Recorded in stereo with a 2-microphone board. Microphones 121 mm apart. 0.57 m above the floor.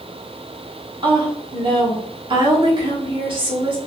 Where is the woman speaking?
45° right (ahead or behind), 1.0 m.